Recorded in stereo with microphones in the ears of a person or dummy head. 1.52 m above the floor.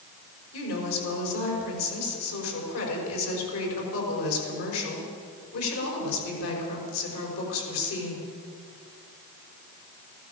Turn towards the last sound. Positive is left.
turn(degrees=80)